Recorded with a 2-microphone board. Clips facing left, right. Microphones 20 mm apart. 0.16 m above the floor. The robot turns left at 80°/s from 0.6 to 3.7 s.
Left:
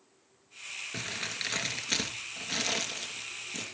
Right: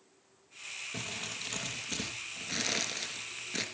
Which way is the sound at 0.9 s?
140° left.